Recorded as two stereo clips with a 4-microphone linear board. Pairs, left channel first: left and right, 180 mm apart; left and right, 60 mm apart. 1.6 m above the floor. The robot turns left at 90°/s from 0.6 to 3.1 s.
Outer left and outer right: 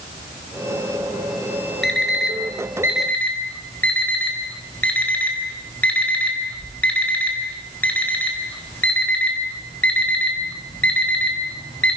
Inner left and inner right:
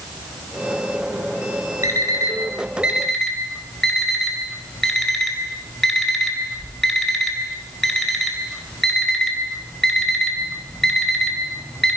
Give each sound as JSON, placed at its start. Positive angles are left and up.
{"t": 1.8, "sound": "an alarm clock", "side_deg": -70, "distance_m": 4.0}